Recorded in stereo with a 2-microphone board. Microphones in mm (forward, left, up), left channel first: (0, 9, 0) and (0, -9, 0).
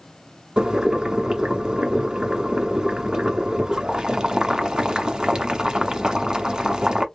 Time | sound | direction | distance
0.6 | boiling | 40° right (ahead or behind) | 1.0 m